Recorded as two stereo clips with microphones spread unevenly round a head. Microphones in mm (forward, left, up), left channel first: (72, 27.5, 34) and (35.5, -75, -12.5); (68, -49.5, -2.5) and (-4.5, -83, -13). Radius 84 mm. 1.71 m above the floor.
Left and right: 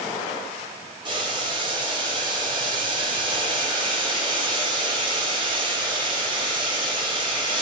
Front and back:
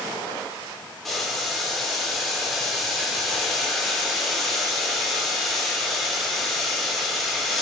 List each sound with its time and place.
1.1 s boiling: 60° right, 1.4 m